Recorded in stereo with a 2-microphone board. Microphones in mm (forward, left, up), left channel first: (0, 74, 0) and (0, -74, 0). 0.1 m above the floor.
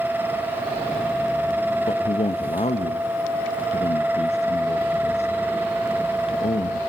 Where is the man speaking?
45° left (ahead or behind), 2.0 m.